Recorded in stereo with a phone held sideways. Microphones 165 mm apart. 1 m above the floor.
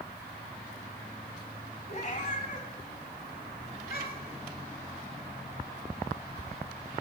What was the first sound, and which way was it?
A cat meowing, 40° left (ahead or behind).